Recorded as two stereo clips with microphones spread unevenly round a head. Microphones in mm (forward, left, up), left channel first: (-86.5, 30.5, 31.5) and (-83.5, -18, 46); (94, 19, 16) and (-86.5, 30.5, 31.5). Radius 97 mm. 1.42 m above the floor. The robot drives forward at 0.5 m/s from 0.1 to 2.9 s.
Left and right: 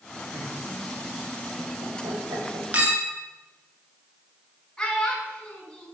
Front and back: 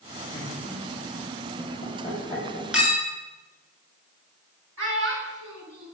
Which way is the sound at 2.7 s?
105° right.